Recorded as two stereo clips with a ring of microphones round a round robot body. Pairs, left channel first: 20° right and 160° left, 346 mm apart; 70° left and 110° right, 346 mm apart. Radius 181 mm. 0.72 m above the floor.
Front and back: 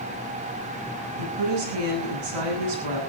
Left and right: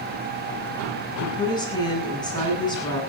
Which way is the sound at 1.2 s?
145° left.